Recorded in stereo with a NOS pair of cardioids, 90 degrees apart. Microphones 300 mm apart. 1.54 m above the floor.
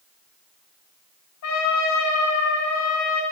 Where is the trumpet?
65° left, 4.5 m.